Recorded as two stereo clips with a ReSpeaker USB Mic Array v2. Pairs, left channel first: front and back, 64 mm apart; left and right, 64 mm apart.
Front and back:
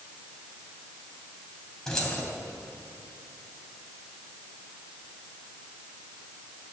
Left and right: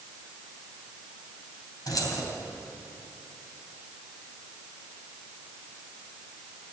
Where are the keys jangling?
80° left, 3 m.